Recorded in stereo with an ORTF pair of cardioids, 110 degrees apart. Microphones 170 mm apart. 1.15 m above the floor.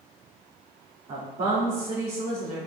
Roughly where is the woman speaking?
Ahead right.